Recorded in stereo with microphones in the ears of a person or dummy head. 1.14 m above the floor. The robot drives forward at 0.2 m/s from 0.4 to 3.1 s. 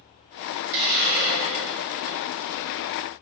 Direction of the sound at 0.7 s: 60° right (ahead or behind).